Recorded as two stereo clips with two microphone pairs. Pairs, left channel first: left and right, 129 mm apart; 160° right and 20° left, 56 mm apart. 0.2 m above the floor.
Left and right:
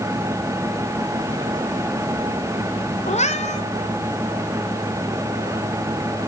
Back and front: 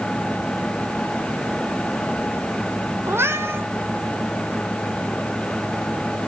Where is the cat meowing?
60° left, 1.3 m.